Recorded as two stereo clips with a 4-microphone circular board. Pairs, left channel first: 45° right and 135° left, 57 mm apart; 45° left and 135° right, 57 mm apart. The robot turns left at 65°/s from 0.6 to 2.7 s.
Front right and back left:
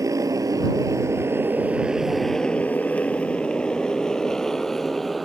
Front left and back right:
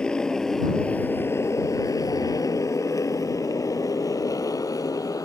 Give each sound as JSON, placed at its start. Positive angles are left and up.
{"t": 0.0, "sound": "a motorcycle", "azimuth_deg": 120}